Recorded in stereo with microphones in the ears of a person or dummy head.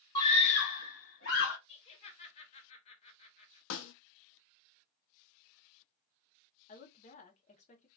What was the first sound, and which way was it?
A scream, 25° left (ahead or behind).